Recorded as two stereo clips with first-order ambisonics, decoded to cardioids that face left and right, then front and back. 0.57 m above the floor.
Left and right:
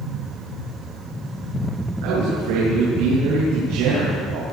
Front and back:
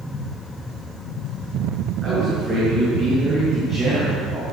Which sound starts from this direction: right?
A man speaking, at 2.0 s.